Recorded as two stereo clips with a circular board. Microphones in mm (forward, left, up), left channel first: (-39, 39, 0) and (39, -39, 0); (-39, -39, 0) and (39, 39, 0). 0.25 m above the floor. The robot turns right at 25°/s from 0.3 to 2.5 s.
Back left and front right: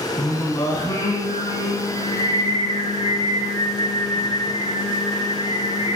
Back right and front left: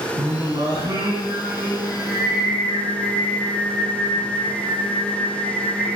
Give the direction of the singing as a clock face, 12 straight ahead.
9 o'clock.